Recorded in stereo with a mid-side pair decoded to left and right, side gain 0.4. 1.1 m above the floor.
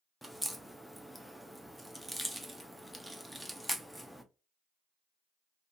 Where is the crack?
Straight ahead, 0.7 m.